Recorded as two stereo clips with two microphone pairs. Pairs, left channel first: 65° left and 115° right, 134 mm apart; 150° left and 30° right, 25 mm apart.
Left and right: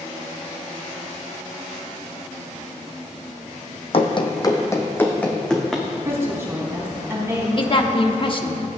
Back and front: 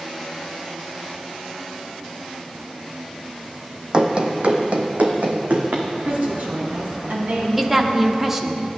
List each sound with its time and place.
3.9 s running footsteps: 20° left, 1.2 m; by 5.9 s 30° right, 2 m
6.0 s a woman speaking: 45° right, 4 m
7.6 s a woman speaking: 40° left, 1.0 m